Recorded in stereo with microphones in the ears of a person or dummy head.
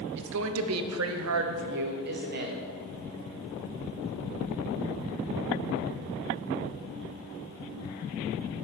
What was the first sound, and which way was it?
A woman speaking, 60° right (ahead or behind).